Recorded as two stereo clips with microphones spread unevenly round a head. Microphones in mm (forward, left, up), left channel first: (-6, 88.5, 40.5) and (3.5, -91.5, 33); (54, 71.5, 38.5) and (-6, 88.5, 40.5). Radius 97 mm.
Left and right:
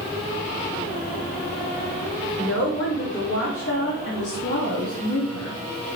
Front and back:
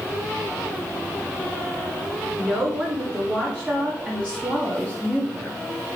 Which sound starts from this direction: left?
A woman speaking, at 2.4 s.